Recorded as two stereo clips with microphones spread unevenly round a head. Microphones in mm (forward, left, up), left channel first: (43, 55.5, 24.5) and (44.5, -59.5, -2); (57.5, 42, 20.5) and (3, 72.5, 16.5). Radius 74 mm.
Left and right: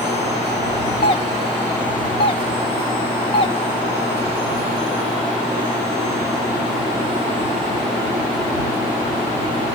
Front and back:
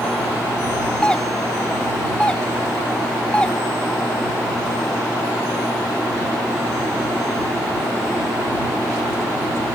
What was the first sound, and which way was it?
A doorbell, 45° left.